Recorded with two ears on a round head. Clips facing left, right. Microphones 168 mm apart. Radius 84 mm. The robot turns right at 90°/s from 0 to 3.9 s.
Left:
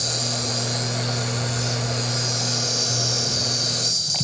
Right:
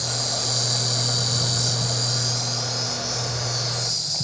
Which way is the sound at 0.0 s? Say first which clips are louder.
Left 2 dB; 145° left.